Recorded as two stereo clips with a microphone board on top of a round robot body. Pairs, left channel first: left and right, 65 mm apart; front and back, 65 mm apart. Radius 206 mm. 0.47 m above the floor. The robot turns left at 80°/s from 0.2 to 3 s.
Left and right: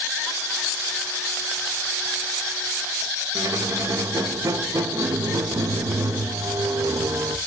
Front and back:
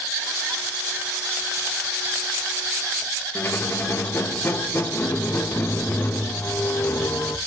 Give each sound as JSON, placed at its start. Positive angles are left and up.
{"t": 3.4, "sound": "a squeak", "azimuth_deg": -55, "distance_m": 1.0}